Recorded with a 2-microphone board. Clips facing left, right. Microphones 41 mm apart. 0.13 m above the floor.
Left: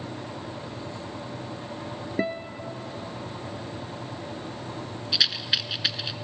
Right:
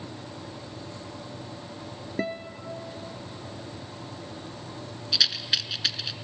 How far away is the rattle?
About 0.6 m.